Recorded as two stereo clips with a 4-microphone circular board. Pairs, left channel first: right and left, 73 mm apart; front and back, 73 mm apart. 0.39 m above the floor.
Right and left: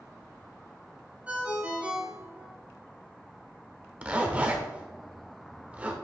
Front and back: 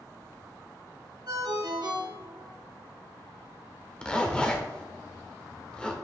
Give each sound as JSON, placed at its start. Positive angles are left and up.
{"t": 1.3, "sound": "a ringtone", "azimuth_deg": 160, "distance_m": 1.7}
{"t": 4.0, "sound": "a zipper", "azimuth_deg": 55, "distance_m": 1.0}